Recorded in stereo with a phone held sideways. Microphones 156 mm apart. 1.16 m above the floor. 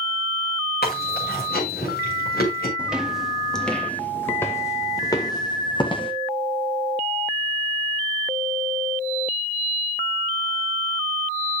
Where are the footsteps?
5° right (ahead or behind), 2 m; by 6.1 s 30° left (ahead or behind), 2.5 m.